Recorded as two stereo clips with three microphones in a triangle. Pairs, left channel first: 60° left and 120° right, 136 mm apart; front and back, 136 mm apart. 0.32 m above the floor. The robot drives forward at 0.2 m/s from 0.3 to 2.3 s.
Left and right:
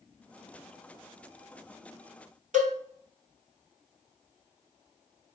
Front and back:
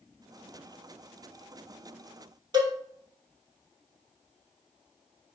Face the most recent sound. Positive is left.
turn(degrees=-125)